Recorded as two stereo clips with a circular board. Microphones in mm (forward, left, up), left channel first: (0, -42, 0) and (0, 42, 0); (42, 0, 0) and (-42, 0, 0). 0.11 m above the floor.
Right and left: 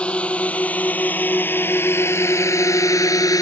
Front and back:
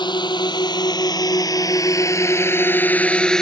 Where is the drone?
15° right; by 3.4 s 80° right.